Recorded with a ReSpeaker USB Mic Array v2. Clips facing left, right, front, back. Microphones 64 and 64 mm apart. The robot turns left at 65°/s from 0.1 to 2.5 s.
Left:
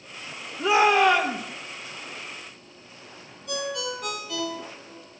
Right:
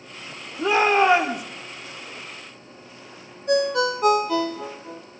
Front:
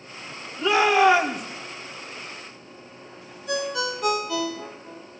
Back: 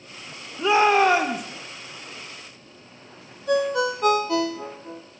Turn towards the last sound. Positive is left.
turn(degrees=-135)